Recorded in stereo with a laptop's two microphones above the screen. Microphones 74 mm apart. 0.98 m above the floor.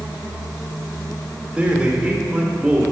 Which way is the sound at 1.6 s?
15° right (ahead or behind).